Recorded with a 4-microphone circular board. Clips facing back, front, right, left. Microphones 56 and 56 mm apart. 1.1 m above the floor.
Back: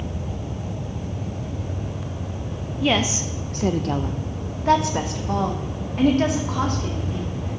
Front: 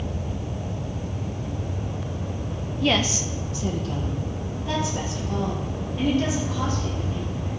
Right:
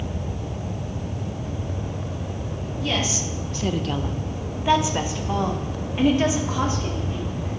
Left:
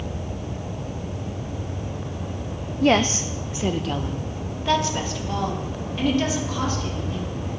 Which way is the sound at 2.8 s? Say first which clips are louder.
Back 2 dB, left 8 dB; 95° left.